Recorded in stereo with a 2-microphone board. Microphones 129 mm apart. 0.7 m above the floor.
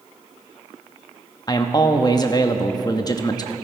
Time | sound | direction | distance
1.5 | a man speaking | 30° left (ahead or behind) | 0.8 m